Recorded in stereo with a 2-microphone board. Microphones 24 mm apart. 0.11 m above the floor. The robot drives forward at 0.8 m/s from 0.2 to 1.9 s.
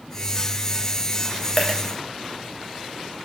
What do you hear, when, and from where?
1.6 s a dropped coin: 10° left (ahead or behind), 1.7 m